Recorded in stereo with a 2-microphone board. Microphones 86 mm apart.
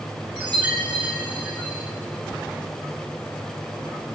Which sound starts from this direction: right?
A chime, at 0.4 s.